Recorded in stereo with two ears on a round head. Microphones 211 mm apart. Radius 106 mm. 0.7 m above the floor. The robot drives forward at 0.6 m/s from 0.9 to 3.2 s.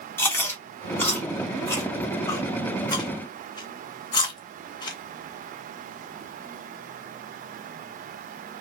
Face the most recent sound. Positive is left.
turn(degrees=20)  # may be behind; listen again after turning